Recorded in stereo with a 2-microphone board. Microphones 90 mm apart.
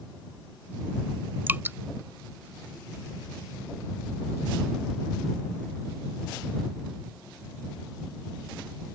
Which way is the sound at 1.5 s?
25° right (ahead or behind).